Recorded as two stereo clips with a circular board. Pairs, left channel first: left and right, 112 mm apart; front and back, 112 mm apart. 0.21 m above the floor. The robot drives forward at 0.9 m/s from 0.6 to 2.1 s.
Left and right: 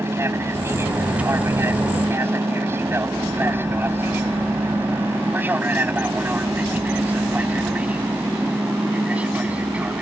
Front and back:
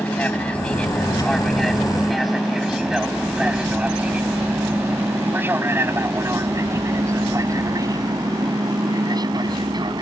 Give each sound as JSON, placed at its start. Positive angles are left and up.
{"t": 0.0, "sound": "an aircraft", "azimuth_deg": -60}